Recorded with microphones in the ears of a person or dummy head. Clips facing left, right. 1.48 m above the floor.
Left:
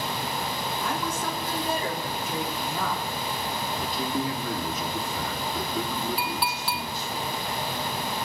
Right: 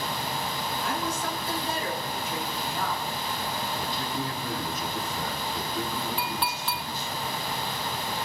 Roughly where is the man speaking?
Left.